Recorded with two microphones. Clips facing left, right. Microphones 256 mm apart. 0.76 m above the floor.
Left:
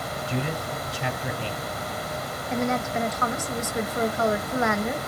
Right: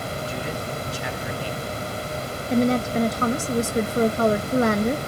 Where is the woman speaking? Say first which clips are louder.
Right 7 dB; 35° right (ahead or behind), 0.9 m.